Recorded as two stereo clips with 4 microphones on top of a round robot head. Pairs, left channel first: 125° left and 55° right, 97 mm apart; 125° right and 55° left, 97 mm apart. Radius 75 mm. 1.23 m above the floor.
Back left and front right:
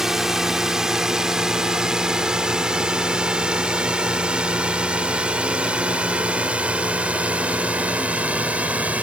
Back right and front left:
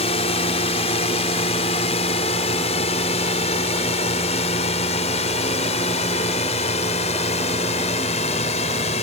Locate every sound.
0.0 s a drone: 145° right; by 9.0 s 135° right